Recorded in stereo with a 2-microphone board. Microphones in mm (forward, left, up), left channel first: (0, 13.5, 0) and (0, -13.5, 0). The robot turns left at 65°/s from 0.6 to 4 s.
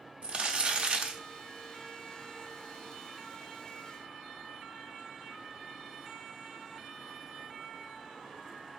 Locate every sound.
0.2 s crumpling: 75° right, 0.7 m; by 1.2 s 115° right, 0.7 m